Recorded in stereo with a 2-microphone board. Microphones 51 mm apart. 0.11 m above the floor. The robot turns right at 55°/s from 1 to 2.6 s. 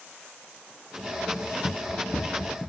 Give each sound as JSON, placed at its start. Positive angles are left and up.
{"t": 1.6, "sound": "running footsteps", "side_deg": 85}